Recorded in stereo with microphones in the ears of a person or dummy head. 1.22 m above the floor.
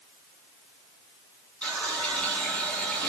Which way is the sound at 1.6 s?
10° left (ahead or behind).